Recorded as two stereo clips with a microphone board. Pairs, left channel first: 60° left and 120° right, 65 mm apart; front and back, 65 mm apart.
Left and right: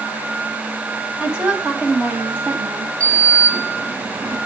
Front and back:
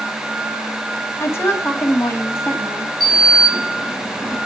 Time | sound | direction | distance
1.2 | a woman speaking | 50° right | 3 m
3.0 | a sliding door | 90° right | 8 m